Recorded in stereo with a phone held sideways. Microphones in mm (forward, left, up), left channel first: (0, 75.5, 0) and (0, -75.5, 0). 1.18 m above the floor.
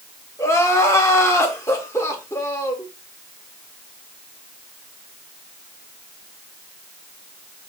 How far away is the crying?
About 1.0 m.